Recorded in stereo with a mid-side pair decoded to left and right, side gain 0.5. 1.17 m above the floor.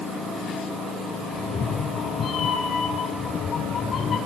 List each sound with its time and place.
1.3 s a cat meowing: 45° left, 3 m; by 4.2 s 50° left, 5 m